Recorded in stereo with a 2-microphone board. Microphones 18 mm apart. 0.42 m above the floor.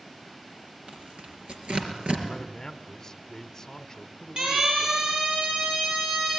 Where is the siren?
70° right (ahead or behind), 8 m.